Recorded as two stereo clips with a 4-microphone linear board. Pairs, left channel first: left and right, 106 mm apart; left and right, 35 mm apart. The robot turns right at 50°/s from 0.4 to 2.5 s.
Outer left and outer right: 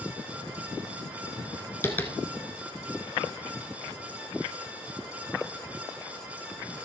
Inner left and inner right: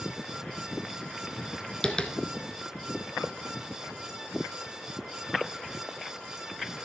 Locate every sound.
1.8 s tapping: 25° left (ahead or behind), 1.0 m; by 2.1 s 15° left (ahead or behind), 1.0 m